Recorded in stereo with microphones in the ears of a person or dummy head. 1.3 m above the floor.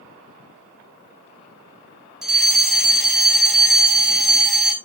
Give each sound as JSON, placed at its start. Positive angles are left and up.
{"t": 2.2, "sound": "a fire alarm", "side_deg": 0, "distance_m": 3.5}